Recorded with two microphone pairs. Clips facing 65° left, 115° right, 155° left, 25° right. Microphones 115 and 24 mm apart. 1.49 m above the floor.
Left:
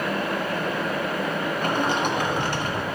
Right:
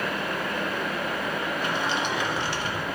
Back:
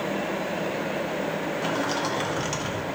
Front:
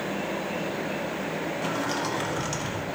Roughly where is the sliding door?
Left.